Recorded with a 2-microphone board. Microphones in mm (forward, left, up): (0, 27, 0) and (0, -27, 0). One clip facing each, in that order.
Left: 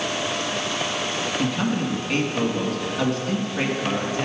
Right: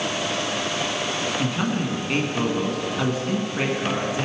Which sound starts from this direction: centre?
A man speaking, at 1.4 s.